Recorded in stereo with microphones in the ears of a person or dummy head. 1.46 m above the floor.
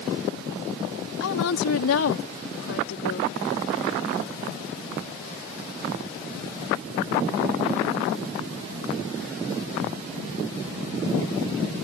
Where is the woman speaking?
80° left; by 3.3 s 75° left (ahead or behind).